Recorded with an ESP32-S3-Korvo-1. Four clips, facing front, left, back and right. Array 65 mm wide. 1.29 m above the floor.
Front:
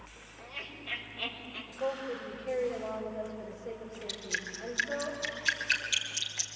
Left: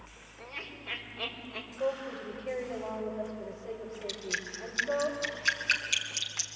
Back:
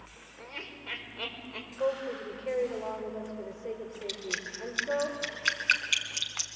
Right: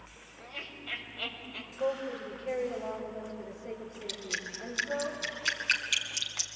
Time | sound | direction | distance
0.4 | laughter | 155° left | 6 m
1.8 | a woman speaking | 170° left | 6 m
4.1 | dripping | straight behind | 2.5 m